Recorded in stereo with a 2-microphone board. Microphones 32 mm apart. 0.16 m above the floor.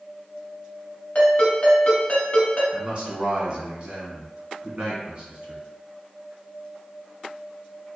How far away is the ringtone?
About 1.4 m.